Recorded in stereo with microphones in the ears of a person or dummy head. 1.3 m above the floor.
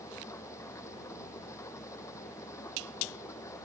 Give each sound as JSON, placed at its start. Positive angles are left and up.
{"t": 0.0, "sound": "an engine running", "side_deg": 15}